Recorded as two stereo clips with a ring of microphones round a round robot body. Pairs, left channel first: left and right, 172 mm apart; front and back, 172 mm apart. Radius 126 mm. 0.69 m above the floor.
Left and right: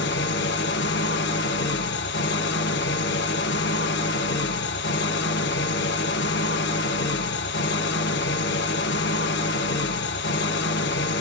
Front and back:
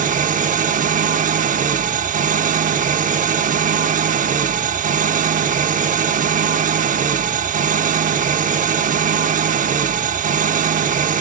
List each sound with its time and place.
0.0 s an engine running: 135° left, 0.8 m